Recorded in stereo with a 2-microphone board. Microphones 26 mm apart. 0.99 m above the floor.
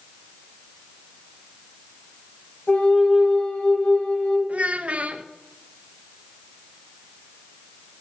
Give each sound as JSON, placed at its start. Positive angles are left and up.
{"t": 2.7, "sound": "a flute", "side_deg": 75, "distance_m": 1.9}
{"t": 4.5, "sound": "a child speaking", "side_deg": -60, "distance_m": 0.5}